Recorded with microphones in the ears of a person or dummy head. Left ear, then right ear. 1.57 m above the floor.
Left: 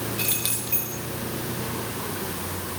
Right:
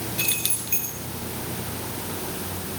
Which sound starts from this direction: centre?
Keys jangling, at 0.2 s.